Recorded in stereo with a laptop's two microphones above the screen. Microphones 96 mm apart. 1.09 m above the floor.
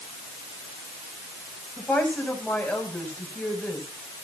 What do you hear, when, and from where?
1.8 s a woman speaking: 10° left (ahead or behind), 8.5 m